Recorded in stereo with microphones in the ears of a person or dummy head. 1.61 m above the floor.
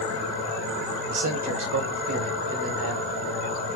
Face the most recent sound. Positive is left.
turn(degrees=-75)  # may be behind; listen again after turning